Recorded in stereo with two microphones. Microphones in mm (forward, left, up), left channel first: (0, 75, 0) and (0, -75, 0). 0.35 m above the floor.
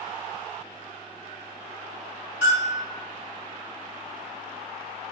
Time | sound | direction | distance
2.4 | a bell | 90° right | 1.9 m